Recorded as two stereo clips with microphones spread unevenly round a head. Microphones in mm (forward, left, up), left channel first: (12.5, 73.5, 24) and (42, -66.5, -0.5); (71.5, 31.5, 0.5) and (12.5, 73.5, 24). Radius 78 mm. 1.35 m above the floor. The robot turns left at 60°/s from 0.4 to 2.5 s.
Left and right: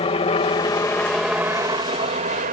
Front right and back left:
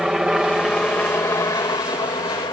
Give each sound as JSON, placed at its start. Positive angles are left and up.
{"t": 0.0, "sound": "a helicopter", "azimuth_deg": 60}